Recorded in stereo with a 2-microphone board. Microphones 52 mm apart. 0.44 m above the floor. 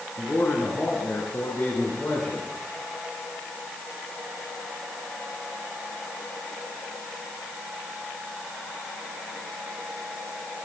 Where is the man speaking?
60° left (ahead or behind), 4.5 m; by 2.5 s 50° left (ahead or behind), 6 m.